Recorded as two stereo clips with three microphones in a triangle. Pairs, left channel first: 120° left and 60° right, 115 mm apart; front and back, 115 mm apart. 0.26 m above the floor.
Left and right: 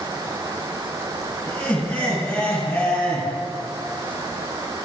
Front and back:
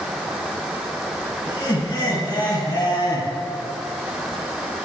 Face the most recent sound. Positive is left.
turn(degrees=45)